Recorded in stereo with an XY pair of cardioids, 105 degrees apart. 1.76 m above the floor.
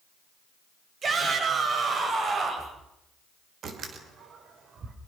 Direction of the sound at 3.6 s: 55° right.